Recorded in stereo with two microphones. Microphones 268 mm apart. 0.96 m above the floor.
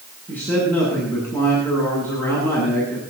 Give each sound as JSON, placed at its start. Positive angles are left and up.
{"t": 0.3, "sound": "a man speaking", "side_deg": 5, "distance_m": 9.5}